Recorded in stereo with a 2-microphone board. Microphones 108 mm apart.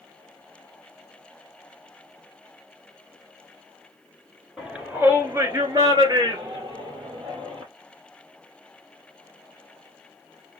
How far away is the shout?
About 1.5 m.